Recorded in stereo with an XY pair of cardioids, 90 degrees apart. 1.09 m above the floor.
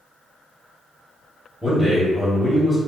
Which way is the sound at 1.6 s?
10° left.